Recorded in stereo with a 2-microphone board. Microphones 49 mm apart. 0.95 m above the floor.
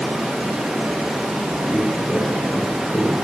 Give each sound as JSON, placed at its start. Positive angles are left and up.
{"t": 0.0, "sound": "running water", "side_deg": -10, "distance_m": 0.8}
{"t": 1.7, "sound": "footsteps", "side_deg": 35, "distance_m": 3.0}